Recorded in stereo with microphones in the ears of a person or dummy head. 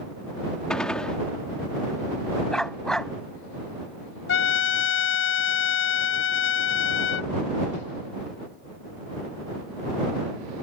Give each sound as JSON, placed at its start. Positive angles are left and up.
{"t": 0.7, "sound": "a gunshot", "side_deg": 10}
{"t": 2.5, "sound": "a dog barking", "side_deg": 10}
{"t": 4.3, "sound": "a trumpet", "side_deg": 60}